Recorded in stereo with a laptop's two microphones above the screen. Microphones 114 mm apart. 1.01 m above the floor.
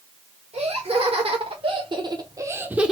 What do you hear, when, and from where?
0.5 s laughter: 65° right (ahead or behind), 1.7 m; by 2.9 s 5° right (ahead or behind), 0.7 m